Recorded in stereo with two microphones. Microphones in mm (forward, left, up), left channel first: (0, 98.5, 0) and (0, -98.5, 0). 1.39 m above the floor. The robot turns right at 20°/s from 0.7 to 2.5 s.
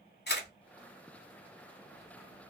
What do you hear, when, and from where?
0.3 s a camera shutter: 55° left (ahead or behind), 1.0 m